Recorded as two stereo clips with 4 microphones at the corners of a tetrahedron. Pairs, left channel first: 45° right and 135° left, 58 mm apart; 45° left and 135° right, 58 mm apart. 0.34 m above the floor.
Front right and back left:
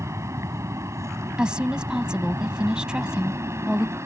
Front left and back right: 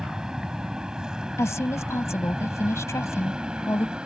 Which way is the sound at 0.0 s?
150° left.